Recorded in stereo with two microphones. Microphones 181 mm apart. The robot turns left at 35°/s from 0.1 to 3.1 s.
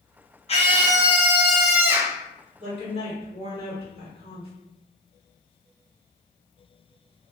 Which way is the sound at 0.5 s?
35° left.